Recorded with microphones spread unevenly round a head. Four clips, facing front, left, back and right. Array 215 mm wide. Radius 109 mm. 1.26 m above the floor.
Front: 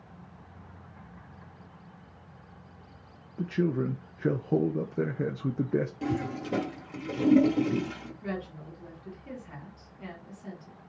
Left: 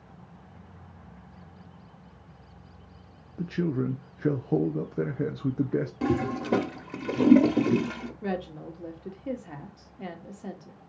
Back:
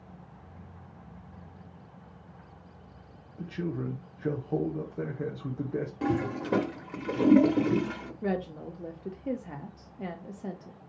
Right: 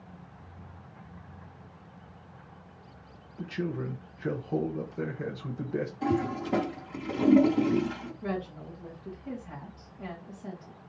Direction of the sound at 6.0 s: 90° left.